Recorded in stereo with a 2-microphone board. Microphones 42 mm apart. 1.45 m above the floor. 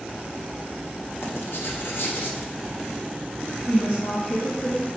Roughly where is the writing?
Left.